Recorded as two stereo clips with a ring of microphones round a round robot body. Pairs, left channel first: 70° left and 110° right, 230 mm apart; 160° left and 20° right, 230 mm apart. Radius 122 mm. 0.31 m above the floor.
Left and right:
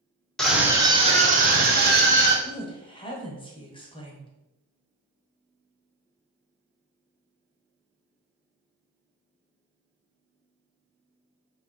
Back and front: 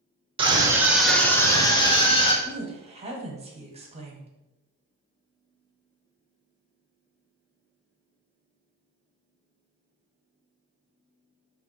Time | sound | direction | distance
0.4 | a scream | 15° right | 1.0 m
2.4 | a woman speaking | 20° left | 1.1 m